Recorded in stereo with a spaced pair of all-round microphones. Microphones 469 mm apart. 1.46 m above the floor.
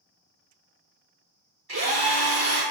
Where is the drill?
50° right (ahead or behind), 2.5 m.